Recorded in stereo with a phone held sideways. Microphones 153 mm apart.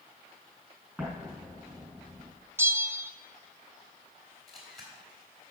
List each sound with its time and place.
1.0 s an explosion: centre (ahead or behind), 5 m
2.6 s a bell: 15° right (ahead or behind), 0.6 m
4.5 s a camera shutter: centre (ahead or behind), 3 m